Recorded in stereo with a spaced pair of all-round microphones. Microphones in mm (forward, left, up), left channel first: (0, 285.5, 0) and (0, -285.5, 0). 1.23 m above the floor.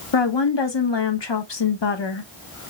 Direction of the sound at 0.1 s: 50° left (ahead or behind).